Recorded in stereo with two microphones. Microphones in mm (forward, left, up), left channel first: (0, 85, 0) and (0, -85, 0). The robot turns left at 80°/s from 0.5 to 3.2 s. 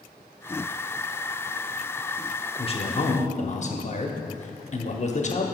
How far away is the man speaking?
About 0.8 m.